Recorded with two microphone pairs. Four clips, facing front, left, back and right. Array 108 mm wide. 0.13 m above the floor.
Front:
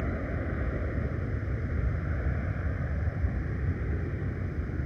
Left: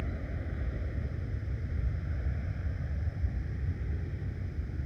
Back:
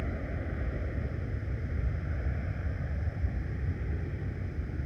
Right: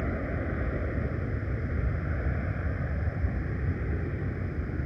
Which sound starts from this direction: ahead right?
An aircraft, at 0.0 s.